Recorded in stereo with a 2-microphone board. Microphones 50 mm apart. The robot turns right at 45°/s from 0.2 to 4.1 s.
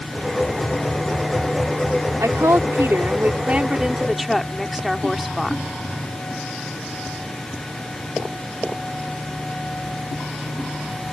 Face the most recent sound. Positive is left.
turn(degrees=0)